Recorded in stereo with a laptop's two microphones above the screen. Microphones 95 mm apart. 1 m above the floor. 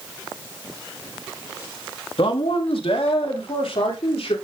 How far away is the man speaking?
About 1.4 m.